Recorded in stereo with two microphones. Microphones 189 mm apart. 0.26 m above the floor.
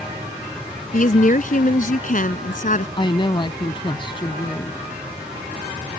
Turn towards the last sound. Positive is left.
turn(degrees=25)  # may be behind; listen again after turning